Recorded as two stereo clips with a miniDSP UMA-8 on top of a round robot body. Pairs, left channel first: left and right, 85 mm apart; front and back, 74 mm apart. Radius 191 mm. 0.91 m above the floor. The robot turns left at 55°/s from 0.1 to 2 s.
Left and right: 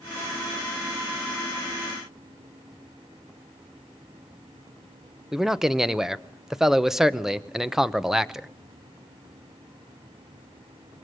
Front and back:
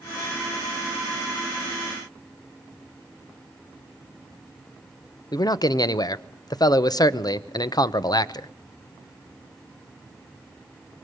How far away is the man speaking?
About 1.2 m.